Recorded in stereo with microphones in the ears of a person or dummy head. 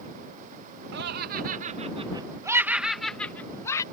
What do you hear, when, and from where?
0.9 s laughter: 60° right (ahead or behind); by 3.8 s 20° left (ahead or behind)